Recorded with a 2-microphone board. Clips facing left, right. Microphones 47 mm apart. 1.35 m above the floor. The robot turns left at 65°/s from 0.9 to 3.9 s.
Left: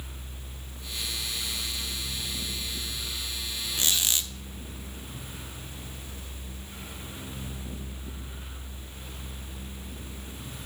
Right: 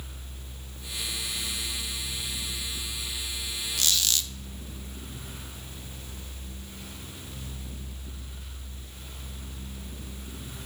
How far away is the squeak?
About 0.8 m.